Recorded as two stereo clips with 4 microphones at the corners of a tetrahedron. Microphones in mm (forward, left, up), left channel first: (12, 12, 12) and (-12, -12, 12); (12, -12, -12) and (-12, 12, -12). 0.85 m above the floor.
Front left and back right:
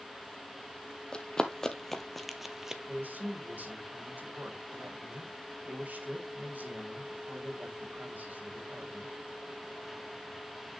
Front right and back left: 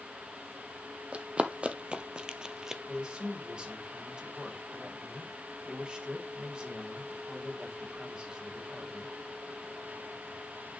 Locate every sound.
1.1 s running footsteps: 95° left, 1.2 m; by 2.8 s 175° right, 0.8 m
2.9 s a man speaking: 165° right, 2.5 m